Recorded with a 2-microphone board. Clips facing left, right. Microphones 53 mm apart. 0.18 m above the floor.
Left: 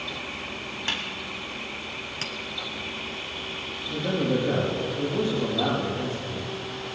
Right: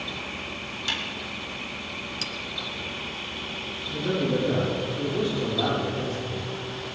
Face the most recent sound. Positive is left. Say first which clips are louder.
# even
turn(degrees=35)  # may be behind; listen again after turning